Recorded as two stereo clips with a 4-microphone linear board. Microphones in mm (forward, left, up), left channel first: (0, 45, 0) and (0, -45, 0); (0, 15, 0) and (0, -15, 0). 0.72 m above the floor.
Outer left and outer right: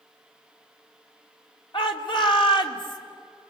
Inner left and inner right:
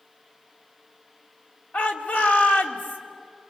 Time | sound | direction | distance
1.7 | a shout | 65° left (ahead or behind) | 2 m